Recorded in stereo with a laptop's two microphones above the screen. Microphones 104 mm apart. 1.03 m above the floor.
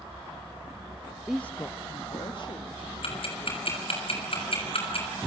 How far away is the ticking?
About 6.5 m.